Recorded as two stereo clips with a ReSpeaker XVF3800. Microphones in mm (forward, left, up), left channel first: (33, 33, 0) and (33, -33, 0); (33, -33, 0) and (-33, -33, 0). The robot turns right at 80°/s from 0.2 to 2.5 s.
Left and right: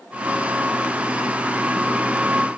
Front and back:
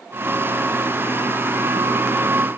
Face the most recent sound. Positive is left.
No sound to turn to.